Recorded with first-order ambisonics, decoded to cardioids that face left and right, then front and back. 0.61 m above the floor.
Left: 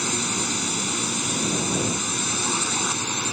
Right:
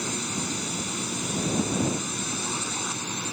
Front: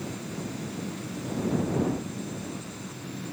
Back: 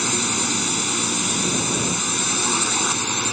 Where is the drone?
160° left.